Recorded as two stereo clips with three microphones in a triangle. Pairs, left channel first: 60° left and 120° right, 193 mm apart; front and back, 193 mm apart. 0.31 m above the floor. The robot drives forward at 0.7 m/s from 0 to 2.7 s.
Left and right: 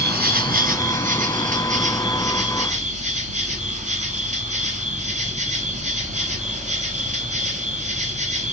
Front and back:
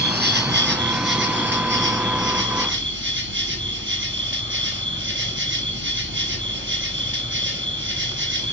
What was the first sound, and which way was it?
An insect, 150° right.